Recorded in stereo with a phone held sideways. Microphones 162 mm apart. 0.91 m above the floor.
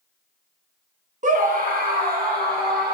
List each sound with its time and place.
1.2 s a scream: 50° right (ahead or behind), 1.3 m; by 2.9 s 70° right (ahead or behind), 3.5 m